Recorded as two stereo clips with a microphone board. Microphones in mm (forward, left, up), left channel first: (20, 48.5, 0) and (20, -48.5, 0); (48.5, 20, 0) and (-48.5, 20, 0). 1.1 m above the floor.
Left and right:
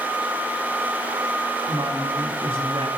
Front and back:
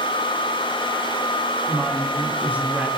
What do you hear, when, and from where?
1.7 s a woman speaking: 105° right, 3.5 m